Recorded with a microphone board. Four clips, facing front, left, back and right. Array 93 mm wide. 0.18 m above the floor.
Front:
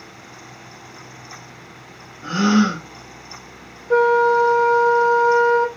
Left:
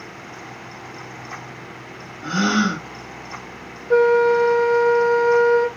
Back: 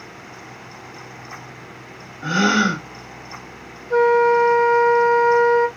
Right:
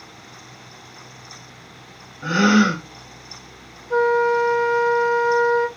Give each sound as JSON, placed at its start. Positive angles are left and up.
{"t": 2.2, "sound": "a gasp", "azimuth_deg": -125, "distance_m": 1.8}
{"t": 3.9, "sound": "a flute", "azimuth_deg": 45, "distance_m": 1.5}